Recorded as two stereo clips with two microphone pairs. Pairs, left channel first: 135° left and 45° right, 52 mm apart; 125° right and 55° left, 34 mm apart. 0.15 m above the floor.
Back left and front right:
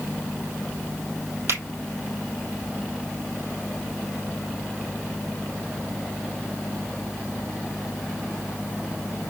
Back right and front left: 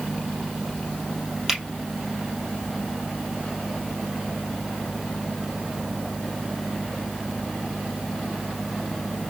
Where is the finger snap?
25° right, 3 m.